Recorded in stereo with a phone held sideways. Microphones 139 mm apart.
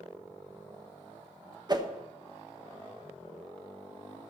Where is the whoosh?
30° right (ahead or behind), 1.0 m.